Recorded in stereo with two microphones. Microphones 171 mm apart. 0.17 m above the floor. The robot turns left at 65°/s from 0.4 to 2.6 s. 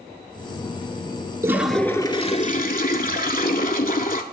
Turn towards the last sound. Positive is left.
turn(degrees=120)